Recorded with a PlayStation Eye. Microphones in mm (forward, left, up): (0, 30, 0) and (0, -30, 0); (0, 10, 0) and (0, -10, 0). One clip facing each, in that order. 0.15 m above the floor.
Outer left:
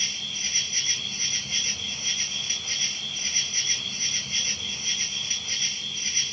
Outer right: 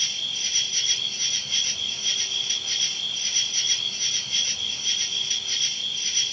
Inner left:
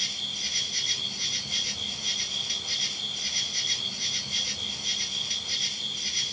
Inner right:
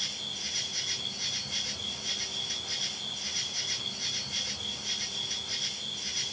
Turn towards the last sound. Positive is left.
turn(degrees=30)  # may be behind; listen again after turning